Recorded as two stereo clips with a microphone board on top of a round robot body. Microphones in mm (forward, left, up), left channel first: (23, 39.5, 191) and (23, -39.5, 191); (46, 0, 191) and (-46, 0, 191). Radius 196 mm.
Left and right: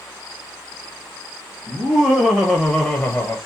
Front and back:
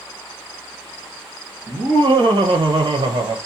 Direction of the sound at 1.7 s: 150° right.